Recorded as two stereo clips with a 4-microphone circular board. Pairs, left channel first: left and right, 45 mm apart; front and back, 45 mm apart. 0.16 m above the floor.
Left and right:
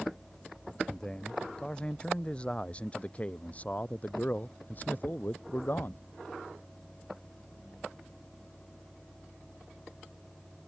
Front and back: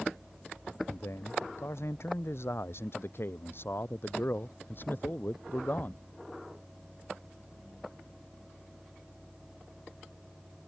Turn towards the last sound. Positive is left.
turn(degrees=50)